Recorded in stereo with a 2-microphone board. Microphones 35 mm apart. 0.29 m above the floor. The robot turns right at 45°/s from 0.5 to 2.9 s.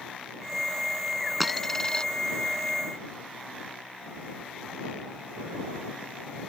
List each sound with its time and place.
1.4 s a dropped coin: centre (ahead or behind); by 2.1 s 30° left (ahead or behind)